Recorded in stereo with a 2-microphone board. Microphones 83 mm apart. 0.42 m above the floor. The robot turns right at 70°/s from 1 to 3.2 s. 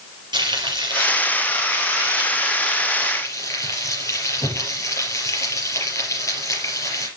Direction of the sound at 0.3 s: 115° right.